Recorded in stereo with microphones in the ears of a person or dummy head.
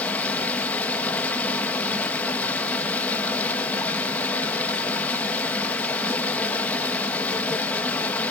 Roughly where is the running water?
Centre.